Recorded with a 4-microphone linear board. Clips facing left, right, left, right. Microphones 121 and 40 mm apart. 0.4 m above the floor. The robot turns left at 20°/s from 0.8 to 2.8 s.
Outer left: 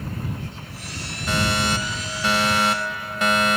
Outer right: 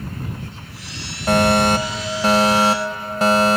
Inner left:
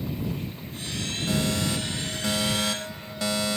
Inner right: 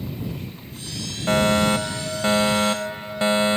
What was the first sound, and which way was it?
A fire alarm, 110° right.